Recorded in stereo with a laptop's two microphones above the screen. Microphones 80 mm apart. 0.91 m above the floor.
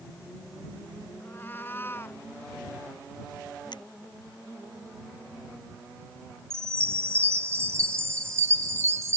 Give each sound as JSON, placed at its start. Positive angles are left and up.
{"t": 1.2, "sound": "a cat meowing", "side_deg": 25}
{"t": 3.7, "sound": "a finger snap", "side_deg": 65}
{"t": 6.5, "sound": "a chime", "side_deg": -35}